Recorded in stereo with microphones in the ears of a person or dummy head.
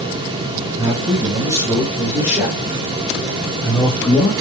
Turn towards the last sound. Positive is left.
turn(degrees=15)  # may be behind; listen again after turning